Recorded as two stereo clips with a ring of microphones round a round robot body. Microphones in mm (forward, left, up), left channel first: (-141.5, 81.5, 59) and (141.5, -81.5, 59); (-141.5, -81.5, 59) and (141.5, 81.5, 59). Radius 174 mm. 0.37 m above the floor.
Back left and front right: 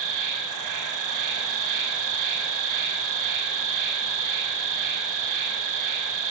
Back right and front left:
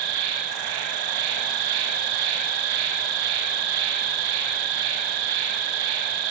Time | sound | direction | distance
0.0 | an insect | 5° left | 0.8 m